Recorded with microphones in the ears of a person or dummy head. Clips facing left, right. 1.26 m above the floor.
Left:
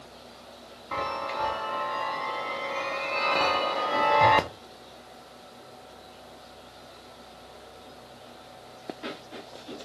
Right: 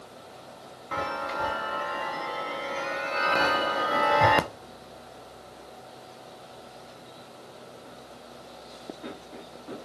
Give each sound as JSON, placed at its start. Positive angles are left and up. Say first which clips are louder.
{"t": 0.9, "sound": "a chime", "louder": "even", "side_deg": -15, "distance_m": 0.6}